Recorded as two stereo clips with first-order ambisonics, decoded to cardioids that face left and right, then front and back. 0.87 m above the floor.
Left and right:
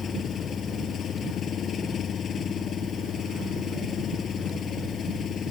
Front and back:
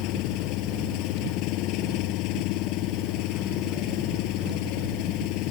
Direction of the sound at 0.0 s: 30° left.